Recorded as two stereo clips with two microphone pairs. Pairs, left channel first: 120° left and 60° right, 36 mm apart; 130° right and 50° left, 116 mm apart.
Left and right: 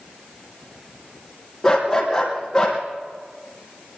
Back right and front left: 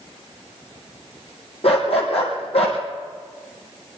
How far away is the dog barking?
About 3.5 m.